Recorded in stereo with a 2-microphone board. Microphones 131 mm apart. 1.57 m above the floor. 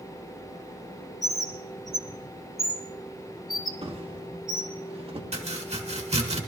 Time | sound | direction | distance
1.2 | a bird | centre (ahead or behind) | 1.7 m
3.8 | a drawer | 45° right (ahead or behind) | 1.5 m
5.3 | chopping | 55° right (ahead or behind) | 1.8 m